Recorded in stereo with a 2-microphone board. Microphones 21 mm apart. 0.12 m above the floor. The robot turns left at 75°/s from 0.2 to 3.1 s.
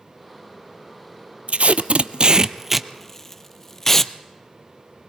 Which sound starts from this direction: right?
Tape being pulled, at 1.5 s.